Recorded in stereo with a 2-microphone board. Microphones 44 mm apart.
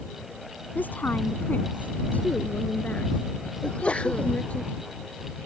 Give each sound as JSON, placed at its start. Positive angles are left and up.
{"t": 0.8, "sound": "a woman speaking", "side_deg": 40}
{"t": 3.6, "sound": "a sneeze", "side_deg": 25}